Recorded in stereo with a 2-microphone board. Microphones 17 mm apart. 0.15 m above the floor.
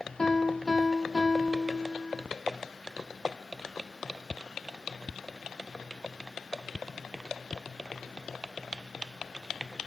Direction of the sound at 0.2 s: 35° left (ahead or behind).